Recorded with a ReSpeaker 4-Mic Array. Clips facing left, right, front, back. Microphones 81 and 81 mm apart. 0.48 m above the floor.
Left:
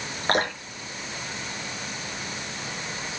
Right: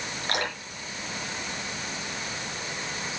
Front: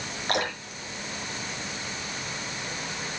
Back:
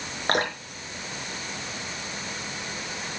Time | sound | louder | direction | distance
0.3 | dripping | left 7 dB, back 3 dB | 135° left | 4.5 m